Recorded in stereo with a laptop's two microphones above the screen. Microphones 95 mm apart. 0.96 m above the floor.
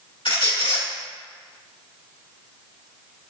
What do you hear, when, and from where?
0.2 s a squeak: 65° left (ahead or behind), 1.5 m